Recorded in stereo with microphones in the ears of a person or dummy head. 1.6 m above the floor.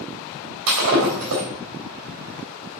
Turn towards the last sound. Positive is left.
turn(degrees=-60)  # may be behind; listen again after turning